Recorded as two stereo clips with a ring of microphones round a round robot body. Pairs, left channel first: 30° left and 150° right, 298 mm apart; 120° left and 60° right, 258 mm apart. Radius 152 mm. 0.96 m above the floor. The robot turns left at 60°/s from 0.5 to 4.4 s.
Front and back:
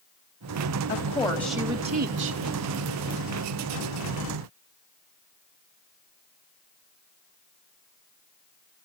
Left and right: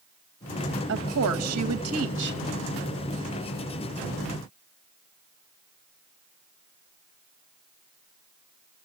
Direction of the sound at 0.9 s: 25° right.